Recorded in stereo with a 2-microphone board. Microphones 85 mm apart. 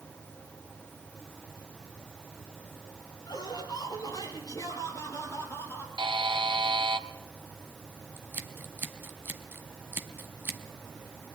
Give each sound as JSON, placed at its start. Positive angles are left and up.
{"t": 3.3, "sound": "laughter", "side_deg": 55, "distance_m": 5.0}
{"t": 6.0, "sound": "a buzzer", "side_deg": -70, "distance_m": 1.5}
{"t": 8.2, "sound": "scissors", "side_deg": -25, "distance_m": 1.6}